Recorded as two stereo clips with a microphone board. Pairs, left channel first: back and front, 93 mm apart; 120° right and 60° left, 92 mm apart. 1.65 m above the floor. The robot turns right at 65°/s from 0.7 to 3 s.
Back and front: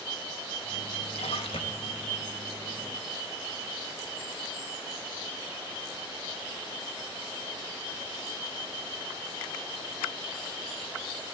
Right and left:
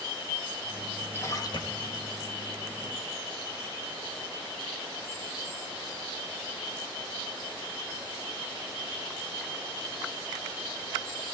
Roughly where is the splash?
Behind.